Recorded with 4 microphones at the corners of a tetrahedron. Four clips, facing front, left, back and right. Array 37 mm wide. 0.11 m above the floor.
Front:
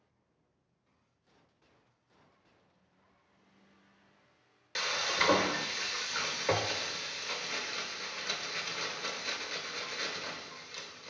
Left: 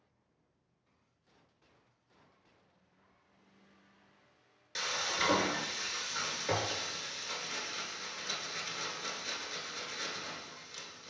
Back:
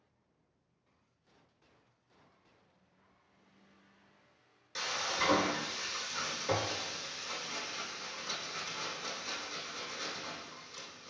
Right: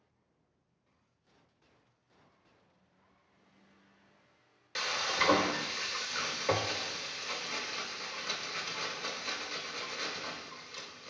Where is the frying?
30° right, 0.5 m.